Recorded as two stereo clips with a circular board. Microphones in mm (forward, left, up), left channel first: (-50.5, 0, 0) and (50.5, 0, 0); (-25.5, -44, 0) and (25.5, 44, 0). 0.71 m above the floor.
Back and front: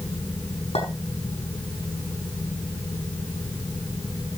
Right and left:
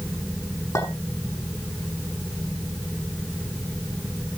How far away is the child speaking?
No child speaking in this recording.